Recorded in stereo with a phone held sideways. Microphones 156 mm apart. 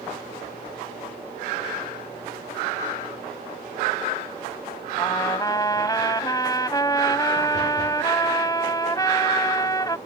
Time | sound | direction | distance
5.0 | a trumpet | 25° left (ahead or behind) | ?